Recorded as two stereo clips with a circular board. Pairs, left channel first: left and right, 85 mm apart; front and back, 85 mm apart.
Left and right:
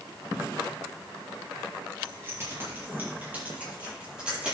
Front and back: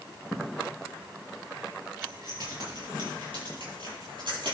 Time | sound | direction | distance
2.0 | keys jangling | 145° right | 5 m